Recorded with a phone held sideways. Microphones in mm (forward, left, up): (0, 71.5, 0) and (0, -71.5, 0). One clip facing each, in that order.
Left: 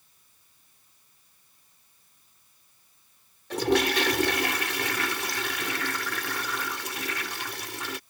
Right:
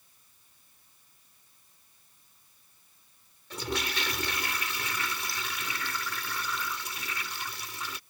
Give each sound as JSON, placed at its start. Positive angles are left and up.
{"t": 3.5, "sound": "a toilet flushing", "side_deg": 75}